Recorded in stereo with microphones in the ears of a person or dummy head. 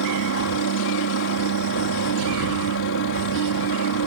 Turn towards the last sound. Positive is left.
turn(degrees=65)  # may be behind; listen again after turning